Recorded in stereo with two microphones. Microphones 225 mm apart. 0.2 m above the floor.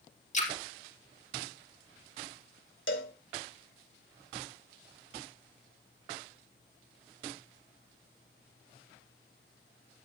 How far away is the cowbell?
About 1.4 m.